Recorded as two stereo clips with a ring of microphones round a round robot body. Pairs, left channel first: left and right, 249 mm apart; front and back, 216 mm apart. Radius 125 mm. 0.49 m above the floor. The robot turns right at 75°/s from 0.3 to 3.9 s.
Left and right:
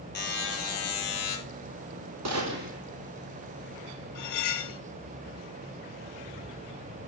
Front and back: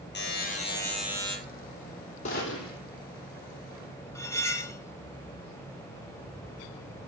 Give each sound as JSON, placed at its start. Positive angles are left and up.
{"t": 0.1, "sound": "a buzzer", "azimuth_deg": 40, "distance_m": 4.5}
{"t": 2.2, "sound": "a gunshot", "azimuth_deg": -65, "distance_m": 2.5}
{"t": 4.2, "sound": "cutlery clinking", "azimuth_deg": 75, "distance_m": 1.3}